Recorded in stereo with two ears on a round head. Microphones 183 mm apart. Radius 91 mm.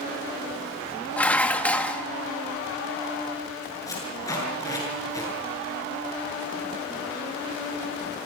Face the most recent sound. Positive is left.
turn(degrees=15)  # may be behind; listen again after turning